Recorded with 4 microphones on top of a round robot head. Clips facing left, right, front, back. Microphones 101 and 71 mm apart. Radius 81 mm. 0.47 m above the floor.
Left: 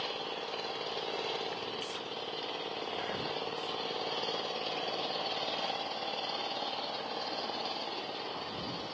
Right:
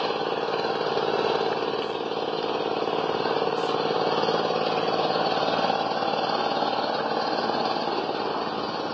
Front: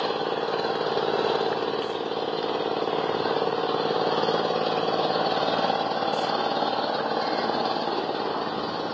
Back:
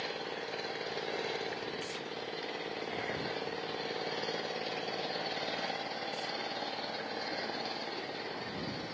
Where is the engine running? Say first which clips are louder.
Right 13 dB, front 13 dB; 45° right.